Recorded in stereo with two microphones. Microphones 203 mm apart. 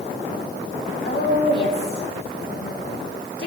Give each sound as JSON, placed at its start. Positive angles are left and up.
{"t": 1.1, "sound": "a woman speaking", "side_deg": 55, "distance_m": 3.0}